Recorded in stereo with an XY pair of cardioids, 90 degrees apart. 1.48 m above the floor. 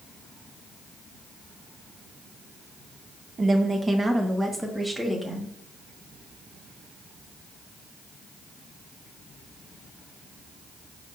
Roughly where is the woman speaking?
Ahead right.